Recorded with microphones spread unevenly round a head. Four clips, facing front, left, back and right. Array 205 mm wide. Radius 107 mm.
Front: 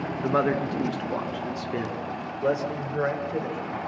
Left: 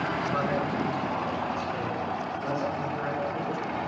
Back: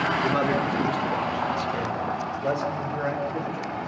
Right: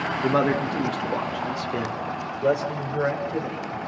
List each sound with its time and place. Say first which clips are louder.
0.2 s a man speaking: right 9 dB, front 4 dB; 75° right, 1.5 m; by 3.8 s 40° right, 6.5 m